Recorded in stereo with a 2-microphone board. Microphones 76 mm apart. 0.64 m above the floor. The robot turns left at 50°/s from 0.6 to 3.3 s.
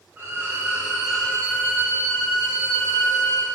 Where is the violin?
150° right, 1.7 m; by 3.5 s 75° left, 1.7 m.